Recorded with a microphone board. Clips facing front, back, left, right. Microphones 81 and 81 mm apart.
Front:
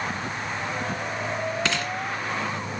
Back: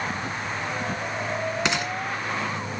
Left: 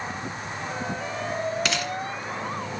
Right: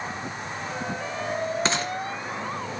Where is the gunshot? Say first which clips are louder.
Back 1 dB, right 2 dB; 120° right, 2.0 m.